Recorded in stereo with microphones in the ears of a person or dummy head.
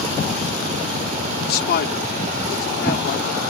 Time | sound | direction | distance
1.4 | a man speaking | 55° left (ahead or behind) | ?